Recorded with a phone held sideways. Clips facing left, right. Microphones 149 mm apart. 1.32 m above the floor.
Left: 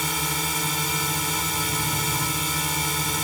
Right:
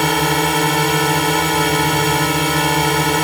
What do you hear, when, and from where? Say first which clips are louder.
0.0 s a drone: right 14 dB; 70° right (ahead or behind)